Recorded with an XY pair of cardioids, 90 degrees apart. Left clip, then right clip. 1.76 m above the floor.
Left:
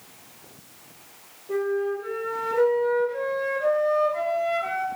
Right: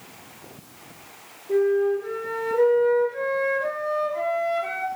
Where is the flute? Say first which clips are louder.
Right 5 dB; 30° left, 1.8 m.